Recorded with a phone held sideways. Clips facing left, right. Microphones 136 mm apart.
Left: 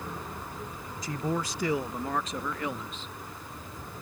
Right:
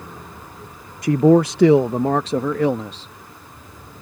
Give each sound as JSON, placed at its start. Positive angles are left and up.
{"t": 1.0, "sound": "a man speaking", "side_deg": -65}